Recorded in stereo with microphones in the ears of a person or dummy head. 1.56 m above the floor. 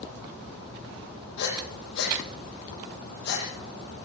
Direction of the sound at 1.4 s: 65° left (ahead or behind).